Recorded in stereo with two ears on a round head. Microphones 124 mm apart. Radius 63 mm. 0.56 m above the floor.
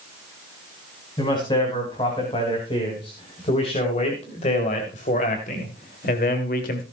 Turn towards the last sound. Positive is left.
turn(degrees=65)  # may be behind; listen again after turning